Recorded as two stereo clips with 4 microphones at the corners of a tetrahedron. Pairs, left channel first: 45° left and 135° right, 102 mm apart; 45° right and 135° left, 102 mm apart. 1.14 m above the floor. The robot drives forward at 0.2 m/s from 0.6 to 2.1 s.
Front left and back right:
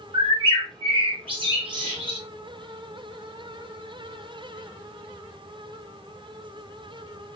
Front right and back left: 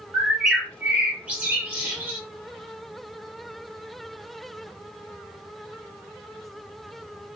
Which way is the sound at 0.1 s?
145° right.